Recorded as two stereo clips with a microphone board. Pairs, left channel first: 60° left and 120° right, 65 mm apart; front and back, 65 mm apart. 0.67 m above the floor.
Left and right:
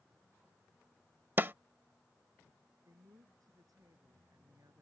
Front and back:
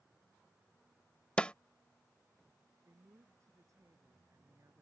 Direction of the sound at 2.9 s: 140° right.